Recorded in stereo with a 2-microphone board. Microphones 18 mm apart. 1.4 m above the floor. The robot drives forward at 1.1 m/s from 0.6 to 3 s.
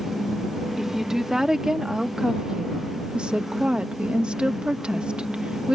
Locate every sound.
0.8 s a woman speaking: 25° right (ahead or behind); by 5.8 s 70° right (ahead or behind)